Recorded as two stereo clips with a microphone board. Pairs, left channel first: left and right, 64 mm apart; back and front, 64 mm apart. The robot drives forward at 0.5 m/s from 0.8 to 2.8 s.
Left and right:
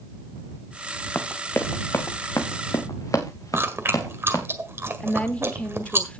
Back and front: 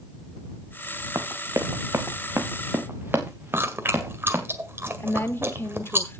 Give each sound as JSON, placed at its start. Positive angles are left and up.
{"t": 1.1, "sound": "running footsteps", "azimuth_deg": 30, "distance_m": 1.6}
{"t": 3.5, "sound": "chewing", "azimuth_deg": -45, "distance_m": 1.7}
{"t": 5.0, "sound": "a woman speaking", "azimuth_deg": 150, "distance_m": 1.1}